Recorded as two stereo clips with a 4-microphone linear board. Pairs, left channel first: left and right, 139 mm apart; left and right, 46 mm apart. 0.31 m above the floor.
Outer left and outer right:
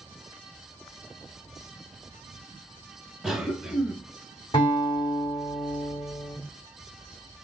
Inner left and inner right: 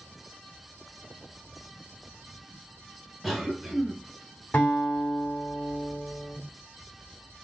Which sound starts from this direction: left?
A guitar, at 4.5 s.